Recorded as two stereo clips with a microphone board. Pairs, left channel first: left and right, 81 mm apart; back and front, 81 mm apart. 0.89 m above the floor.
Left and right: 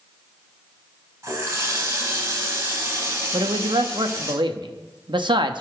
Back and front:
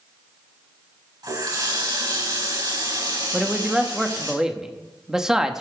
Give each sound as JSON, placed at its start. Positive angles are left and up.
{"t": 1.2, "sound": "a running tap", "azimuth_deg": -35, "distance_m": 3.5}
{"t": 3.3, "sound": "a man speaking", "azimuth_deg": -85, "distance_m": 1.0}